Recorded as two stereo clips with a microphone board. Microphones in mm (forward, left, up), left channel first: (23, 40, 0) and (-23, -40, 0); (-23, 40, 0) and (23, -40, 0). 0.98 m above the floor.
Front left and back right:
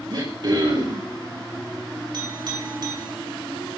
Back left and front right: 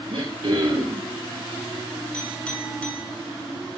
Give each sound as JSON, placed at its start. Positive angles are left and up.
{"t": 0.1, "sound": "throat clearing", "azimuth_deg": -80, "distance_m": 5.0}
{"t": 2.1, "sound": "a clink", "azimuth_deg": -160, "distance_m": 8.0}